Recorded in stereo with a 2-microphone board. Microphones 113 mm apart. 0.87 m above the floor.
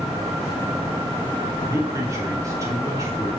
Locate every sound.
1.6 s a man speaking: 30° right (ahead or behind), 2.5 m